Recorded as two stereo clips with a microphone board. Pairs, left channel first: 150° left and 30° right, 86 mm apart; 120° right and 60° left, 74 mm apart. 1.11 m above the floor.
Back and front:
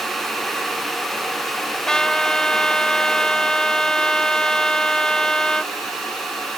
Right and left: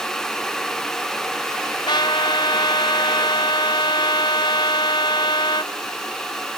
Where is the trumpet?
125° right.